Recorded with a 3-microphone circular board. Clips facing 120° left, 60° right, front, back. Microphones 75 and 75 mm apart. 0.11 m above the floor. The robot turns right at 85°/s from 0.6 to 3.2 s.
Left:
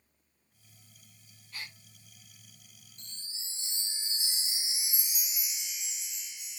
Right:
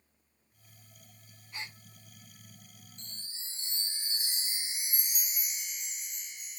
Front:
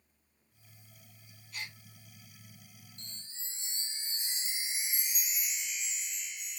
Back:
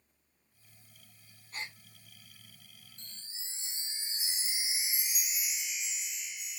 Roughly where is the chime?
Right.